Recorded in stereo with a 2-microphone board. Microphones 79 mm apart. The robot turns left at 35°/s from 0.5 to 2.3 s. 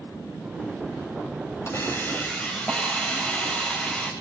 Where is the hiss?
35° left (ahead or behind), 8.5 m; by 4.1 s 15° left (ahead or behind), 8.5 m.